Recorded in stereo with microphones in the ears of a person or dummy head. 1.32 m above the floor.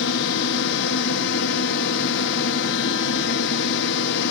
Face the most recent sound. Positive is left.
turn(degrees=60)  # may be behind; listen again after turning